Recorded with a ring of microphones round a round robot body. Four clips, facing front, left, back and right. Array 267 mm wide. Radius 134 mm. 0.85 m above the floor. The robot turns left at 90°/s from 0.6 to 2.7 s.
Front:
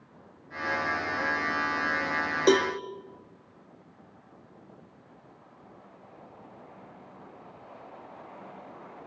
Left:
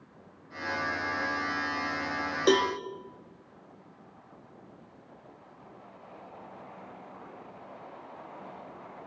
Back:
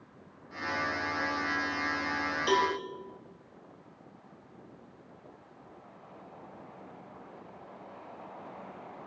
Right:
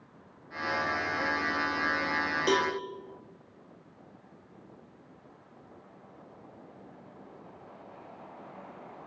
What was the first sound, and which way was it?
A cowbell, 25° left.